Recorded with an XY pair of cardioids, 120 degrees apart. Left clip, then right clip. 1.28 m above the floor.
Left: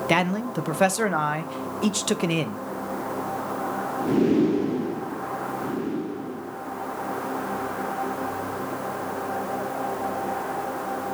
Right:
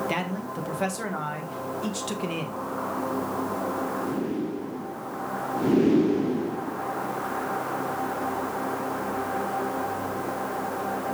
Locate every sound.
0.1 s a man speaking: 50° left, 0.5 m